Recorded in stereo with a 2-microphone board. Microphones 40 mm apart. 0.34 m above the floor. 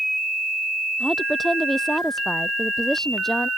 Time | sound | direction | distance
1.0 | a woman speaking | 5° left (ahead or behind) | ?